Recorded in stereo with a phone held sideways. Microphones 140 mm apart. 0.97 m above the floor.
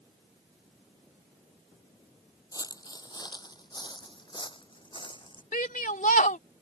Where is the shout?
75° left (ahead or behind).